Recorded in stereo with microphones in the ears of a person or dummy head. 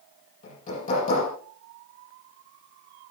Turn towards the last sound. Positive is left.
turn(degrees=40)  # may be behind; listen again after turning